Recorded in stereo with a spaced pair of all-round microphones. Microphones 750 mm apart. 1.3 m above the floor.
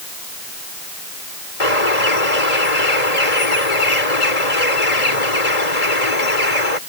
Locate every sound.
1.6 s a bird: 55° left (ahead or behind)